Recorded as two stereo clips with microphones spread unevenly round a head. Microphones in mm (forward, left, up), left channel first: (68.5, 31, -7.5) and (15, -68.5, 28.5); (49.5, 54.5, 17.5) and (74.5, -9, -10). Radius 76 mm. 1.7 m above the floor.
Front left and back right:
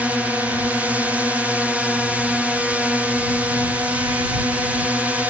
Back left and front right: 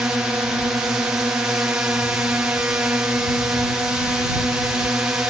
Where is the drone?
25° right.